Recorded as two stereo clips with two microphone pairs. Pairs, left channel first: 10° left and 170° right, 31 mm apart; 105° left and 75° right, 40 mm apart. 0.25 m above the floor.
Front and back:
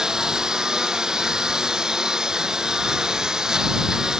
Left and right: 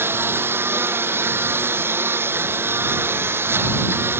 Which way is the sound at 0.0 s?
100° right.